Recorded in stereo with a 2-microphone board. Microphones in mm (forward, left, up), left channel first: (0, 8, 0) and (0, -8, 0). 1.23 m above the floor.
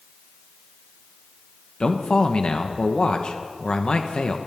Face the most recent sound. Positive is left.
turn(degrees=70)  # may be behind; listen again after turning